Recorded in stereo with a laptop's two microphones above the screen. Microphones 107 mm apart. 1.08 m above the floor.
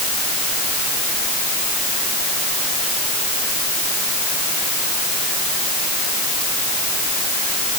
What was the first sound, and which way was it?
Only background noise.